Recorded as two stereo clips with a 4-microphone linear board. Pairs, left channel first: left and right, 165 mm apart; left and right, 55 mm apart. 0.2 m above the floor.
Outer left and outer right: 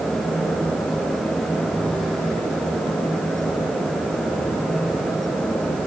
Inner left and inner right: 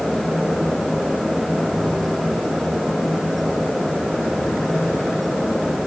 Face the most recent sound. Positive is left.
No sound to turn to.